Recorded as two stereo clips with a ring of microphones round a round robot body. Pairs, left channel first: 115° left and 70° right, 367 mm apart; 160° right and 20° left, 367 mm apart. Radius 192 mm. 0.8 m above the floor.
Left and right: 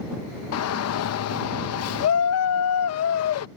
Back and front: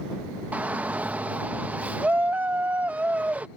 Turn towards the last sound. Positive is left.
turn(degrees=105)